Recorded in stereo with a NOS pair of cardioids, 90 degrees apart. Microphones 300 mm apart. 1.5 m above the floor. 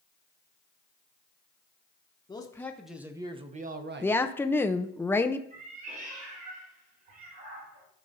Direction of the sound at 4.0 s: 10° left.